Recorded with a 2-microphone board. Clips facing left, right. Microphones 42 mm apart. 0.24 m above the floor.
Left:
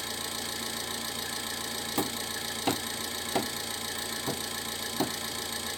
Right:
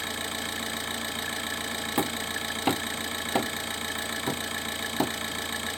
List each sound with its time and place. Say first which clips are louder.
0.0 s an engine running: right 4 dB; 40° right (ahead or behind), 1.2 m
2.0 s hammering: right 3 dB; 20° right (ahead or behind), 0.8 m